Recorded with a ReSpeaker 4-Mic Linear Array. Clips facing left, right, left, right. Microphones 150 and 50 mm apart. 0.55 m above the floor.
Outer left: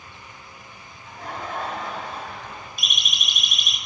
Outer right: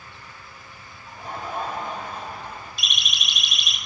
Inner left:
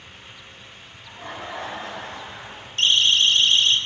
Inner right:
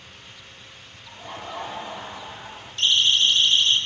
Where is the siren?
50° left (ahead or behind), 4 m.